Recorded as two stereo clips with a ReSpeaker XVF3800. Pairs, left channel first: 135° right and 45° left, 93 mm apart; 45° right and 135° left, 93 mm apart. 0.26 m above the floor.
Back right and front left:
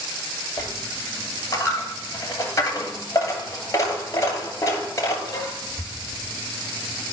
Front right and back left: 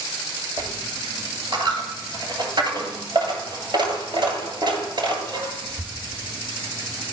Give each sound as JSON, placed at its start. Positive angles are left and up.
{"t": 0.6, "sound": "a dropped coin", "azimuth_deg": 165, "distance_m": 2.0}